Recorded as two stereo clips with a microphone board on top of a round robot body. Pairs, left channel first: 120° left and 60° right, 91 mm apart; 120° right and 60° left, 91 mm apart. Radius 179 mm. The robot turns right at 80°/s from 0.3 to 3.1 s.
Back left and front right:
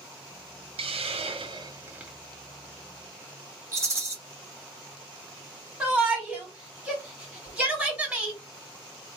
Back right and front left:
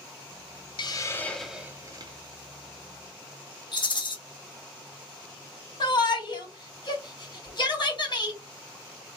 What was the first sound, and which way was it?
A hiss, 85° right.